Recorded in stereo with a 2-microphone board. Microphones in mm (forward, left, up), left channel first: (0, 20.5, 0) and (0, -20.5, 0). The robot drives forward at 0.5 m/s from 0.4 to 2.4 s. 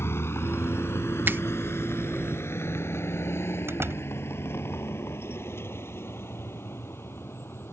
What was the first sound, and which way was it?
A vehicle, 85° left.